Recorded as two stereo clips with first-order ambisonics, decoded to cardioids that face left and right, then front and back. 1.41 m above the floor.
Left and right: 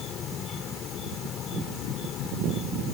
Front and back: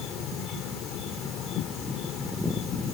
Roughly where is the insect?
Ahead left.